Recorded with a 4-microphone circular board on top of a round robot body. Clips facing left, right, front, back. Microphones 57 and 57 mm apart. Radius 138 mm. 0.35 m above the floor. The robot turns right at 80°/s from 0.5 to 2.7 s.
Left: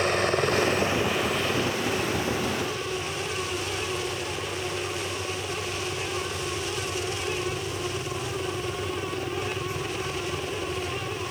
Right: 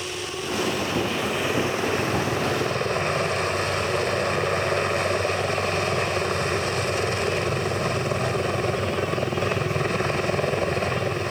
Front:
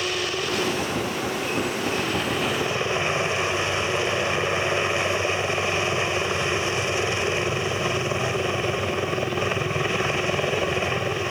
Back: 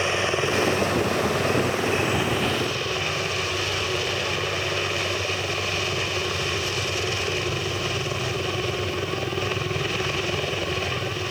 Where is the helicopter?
120° left; by 11.3 s 65° right.